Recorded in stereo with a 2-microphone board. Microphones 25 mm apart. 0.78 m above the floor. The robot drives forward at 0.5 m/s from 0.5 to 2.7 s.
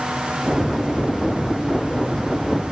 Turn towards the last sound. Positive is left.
No sound to turn to.